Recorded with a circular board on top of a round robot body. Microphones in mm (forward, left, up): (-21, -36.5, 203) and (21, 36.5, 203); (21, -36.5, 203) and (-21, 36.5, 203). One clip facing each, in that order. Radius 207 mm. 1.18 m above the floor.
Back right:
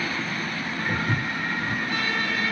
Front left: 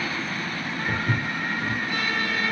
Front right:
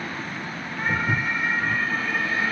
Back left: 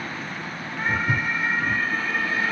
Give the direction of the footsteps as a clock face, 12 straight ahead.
11 o'clock.